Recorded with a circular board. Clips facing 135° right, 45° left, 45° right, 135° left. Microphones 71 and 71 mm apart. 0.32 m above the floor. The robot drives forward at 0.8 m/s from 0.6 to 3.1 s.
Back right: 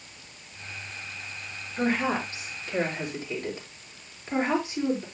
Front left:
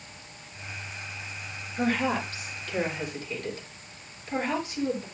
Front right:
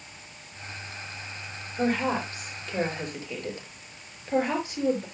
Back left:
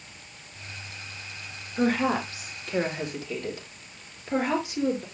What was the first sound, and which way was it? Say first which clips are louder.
A woman speaking: even, back left 2 dB; 155° left.